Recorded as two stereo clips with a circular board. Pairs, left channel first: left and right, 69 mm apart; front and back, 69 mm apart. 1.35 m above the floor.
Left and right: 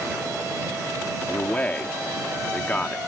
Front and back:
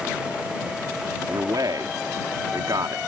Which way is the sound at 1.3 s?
160° left.